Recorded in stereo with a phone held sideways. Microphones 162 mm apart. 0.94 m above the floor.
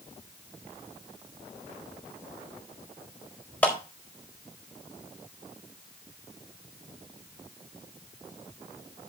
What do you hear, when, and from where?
3.6 s a clap: 10° left (ahead or behind), 4.5 m